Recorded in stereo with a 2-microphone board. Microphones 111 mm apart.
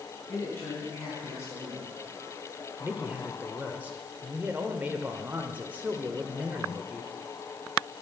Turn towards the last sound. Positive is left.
turn(degrees=-15)  # may be behind; listen again after turning